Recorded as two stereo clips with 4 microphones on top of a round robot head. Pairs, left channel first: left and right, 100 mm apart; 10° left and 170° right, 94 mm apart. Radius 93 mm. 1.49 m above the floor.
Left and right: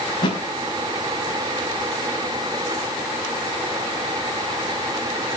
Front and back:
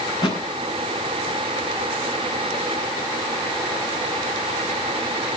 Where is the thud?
50° left, 5.5 m.